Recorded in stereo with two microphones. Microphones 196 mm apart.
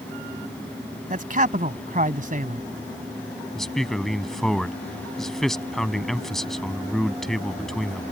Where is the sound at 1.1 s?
45° right (ahead or behind).